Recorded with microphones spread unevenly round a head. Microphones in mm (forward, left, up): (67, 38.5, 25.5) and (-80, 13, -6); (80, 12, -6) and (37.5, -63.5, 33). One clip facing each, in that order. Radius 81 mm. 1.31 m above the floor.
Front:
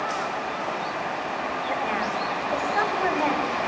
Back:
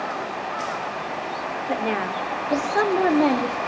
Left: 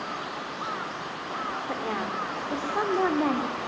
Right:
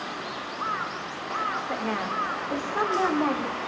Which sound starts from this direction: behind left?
A woman speaking, at 1.7 s.